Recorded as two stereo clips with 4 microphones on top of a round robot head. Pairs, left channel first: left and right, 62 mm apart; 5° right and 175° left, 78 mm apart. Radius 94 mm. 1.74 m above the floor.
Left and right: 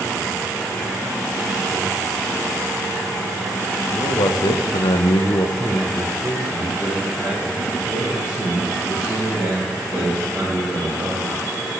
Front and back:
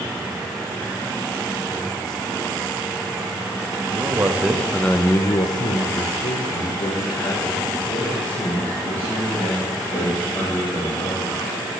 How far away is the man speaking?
About 0.8 m.